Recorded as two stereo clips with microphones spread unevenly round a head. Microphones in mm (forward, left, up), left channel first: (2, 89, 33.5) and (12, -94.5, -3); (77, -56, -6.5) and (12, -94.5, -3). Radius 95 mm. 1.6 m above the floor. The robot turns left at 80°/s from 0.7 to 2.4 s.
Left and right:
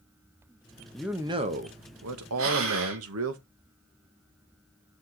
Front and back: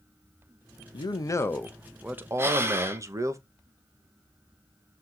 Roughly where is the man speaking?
Ahead.